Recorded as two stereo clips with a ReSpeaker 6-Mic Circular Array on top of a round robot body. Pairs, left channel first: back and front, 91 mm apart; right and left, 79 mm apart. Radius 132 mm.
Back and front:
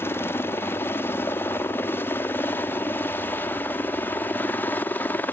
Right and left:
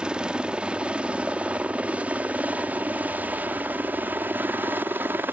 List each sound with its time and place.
0.0 s a helicopter: 155° left; by 5.3 s 130° left